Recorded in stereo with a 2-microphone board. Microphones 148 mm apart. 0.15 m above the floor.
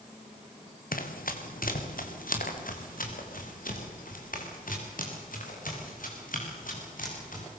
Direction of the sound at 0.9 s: 75° left (ahead or behind).